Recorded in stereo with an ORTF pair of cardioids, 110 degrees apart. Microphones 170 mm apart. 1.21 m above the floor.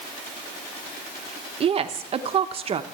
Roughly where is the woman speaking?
Ahead right.